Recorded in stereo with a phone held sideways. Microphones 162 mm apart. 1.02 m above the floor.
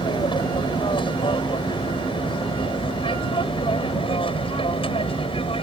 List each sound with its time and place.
0.0 s an aircraft: 30° left (ahead or behind); by 5.6 s 35° left (ahead or behind)